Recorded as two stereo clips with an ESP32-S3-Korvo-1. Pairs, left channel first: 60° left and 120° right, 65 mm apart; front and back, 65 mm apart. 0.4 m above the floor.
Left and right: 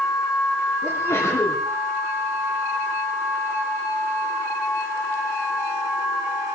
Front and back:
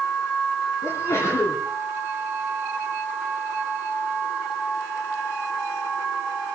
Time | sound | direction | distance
0.8 | a sneeze | 25° left | 3 m